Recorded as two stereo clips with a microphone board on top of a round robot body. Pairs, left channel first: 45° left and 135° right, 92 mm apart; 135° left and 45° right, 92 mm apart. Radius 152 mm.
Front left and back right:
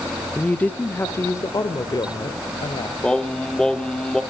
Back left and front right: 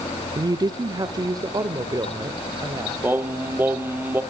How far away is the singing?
About 1.5 m.